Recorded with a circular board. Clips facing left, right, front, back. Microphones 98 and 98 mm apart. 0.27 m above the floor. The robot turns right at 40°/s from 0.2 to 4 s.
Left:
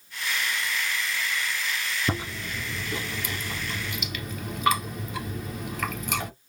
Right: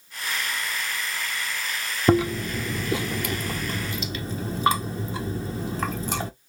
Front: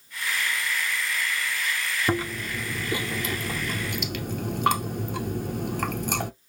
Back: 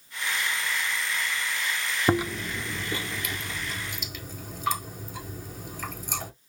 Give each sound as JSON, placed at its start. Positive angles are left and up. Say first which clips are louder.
{"t": 2.1, "sound": "chewing", "louder": "right 11 dB, back 4 dB", "azimuth_deg": -110, "distance_m": 0.7}